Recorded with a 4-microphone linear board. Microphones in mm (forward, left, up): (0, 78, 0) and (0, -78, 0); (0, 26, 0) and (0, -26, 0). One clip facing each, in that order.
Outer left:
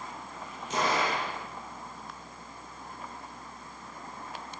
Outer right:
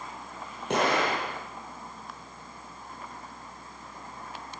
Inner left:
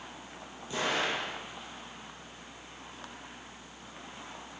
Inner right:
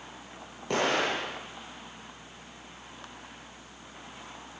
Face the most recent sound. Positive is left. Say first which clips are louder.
# outer right 3 dB, inner right 4 dB
turn(degrees=-60)  # may be behind; listen again after turning